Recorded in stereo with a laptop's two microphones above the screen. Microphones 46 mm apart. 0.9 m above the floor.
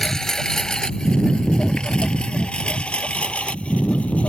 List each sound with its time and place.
0.0 s a lawn mower: 10° left (ahead or behind); by 4.3 s 30° left (ahead or behind)